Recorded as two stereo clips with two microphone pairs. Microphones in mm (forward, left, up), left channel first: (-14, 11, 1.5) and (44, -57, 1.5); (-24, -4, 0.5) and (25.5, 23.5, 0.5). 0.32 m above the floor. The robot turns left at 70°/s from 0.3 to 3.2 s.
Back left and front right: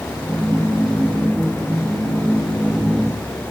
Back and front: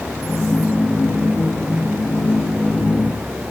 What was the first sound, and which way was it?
Only background noise.